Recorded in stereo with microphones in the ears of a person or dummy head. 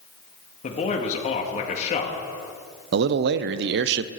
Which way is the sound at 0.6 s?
35° left (ahead or behind).